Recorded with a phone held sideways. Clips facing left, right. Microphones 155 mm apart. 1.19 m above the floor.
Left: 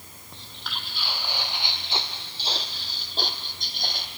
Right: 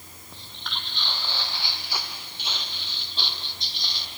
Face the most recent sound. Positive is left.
turn(degrees=50)  # may be behind; listen again after turning